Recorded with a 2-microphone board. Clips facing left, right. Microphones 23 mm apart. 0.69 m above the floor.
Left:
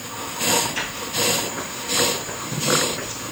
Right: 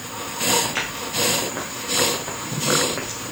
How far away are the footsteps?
About 4.5 m.